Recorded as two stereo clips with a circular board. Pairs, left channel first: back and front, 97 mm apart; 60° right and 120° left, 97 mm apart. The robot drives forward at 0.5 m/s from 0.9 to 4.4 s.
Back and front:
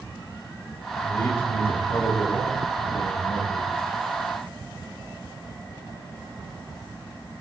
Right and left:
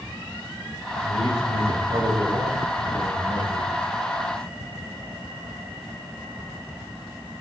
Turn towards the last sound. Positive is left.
turn(degrees=135)